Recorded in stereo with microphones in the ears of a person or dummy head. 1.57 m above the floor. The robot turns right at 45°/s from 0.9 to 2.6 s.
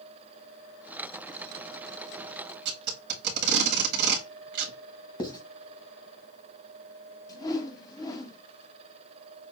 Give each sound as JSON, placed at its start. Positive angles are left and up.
{"t": 2.6, "sound": "tape being pulled", "side_deg": -65, "distance_m": 1.8}
{"t": 5.2, "sound": "writing", "side_deg": 25, "distance_m": 1.1}
{"t": 7.3, "sound": "a whoosh", "side_deg": 25, "distance_m": 1.0}